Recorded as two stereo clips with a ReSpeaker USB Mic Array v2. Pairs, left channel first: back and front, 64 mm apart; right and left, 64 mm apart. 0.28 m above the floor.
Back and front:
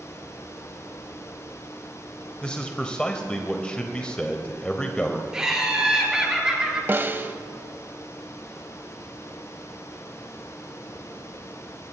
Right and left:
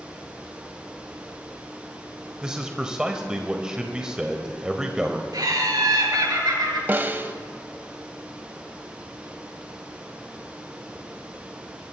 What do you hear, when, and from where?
2.4 s a man speaking: 145° left, 1.1 m
5.3 s laughter: 80° left, 5.5 m
6.9 s a snare drum: 40° left, 0.8 m